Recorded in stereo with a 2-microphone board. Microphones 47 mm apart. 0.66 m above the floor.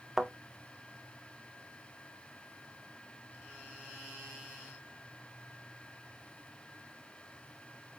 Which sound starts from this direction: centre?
A thud, at 0.2 s.